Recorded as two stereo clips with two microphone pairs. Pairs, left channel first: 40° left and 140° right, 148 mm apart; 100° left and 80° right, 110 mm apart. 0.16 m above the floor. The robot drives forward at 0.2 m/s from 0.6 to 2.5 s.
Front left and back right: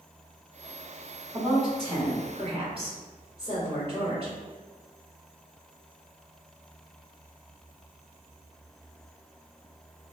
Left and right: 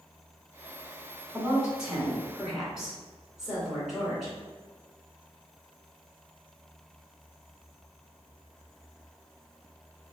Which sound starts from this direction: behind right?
A woman speaking, at 1.3 s.